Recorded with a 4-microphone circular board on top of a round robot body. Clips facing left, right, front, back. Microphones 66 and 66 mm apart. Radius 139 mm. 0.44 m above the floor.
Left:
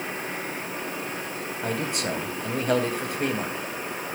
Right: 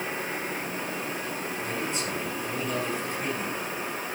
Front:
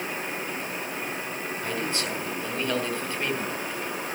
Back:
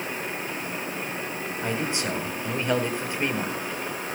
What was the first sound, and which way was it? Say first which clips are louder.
A man speaking: left 5 dB, back 3 dB; 110° left.